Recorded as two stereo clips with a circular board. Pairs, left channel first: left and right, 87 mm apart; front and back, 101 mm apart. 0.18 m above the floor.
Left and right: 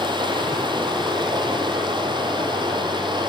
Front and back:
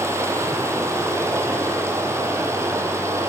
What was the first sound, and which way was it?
Running water, 115° right.